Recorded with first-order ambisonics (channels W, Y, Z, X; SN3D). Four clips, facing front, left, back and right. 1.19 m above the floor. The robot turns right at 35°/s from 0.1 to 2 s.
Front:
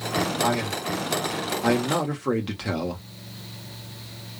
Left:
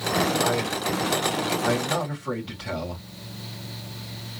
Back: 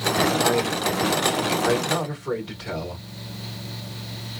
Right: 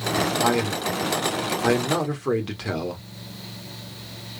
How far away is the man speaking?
About 1.4 m.